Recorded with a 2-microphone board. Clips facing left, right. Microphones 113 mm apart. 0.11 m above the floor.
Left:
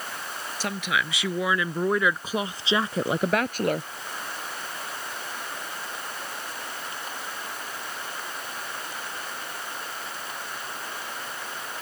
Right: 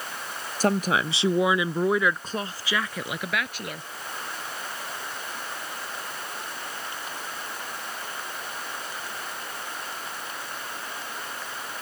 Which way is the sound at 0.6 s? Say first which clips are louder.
Right 6 dB; 40° right (ahead or behind).